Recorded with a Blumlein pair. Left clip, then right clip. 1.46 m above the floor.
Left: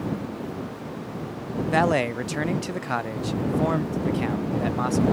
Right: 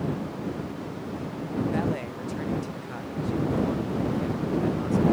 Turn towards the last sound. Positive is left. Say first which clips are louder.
# left 9 dB
turn(degrees=55)